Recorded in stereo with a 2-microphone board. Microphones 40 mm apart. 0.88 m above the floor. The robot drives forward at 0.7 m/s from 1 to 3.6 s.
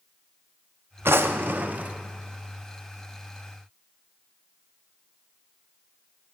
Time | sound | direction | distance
1.1 | a drawer | 75° right (ahead or behind) | 0.5 m